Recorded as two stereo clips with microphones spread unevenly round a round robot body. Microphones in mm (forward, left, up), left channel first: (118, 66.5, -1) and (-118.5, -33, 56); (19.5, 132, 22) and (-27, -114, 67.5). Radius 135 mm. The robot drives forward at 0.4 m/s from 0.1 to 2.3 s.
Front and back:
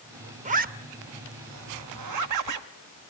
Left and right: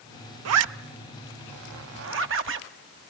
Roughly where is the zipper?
Right.